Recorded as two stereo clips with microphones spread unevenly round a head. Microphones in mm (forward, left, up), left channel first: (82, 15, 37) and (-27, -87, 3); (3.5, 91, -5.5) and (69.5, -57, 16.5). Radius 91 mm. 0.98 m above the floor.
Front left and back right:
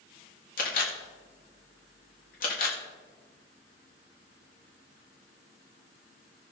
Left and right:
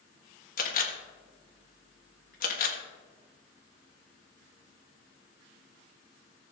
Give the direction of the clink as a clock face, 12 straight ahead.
I don't hear a clink.